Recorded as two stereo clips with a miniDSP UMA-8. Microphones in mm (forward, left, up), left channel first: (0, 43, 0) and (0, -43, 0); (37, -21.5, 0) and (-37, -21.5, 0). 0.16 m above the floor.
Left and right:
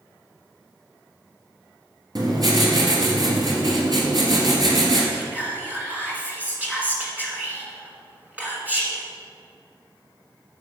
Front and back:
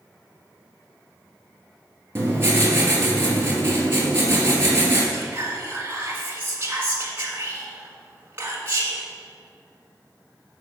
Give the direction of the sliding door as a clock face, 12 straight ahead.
I don't hear a sliding door.